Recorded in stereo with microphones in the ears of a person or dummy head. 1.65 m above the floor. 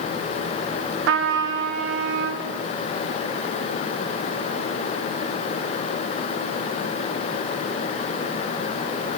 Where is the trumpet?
75° right (ahead or behind), 0.7 m.